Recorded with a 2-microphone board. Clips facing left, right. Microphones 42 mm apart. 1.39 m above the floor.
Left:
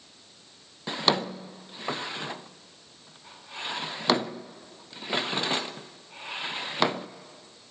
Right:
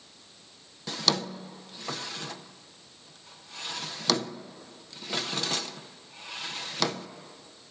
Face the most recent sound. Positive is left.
turn(degrees=25)  # may be behind; listen again after turning